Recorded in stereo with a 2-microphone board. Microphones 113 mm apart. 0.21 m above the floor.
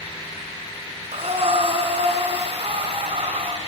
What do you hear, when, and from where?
1.1 s breathing: 60° right (ahead or behind), 2.5 m